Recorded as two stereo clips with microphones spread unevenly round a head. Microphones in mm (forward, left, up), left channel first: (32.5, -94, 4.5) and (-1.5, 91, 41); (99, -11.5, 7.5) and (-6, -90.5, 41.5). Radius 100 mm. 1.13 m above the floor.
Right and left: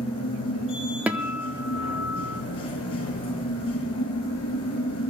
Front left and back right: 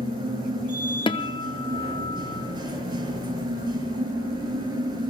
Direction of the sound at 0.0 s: 90° right.